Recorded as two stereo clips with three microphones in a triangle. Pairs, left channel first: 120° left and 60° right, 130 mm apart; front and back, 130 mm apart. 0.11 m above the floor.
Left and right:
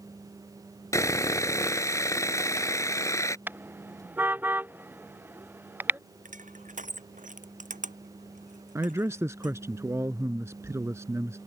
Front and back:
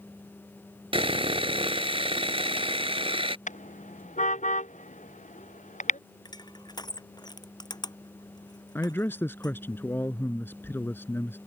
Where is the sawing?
175° left.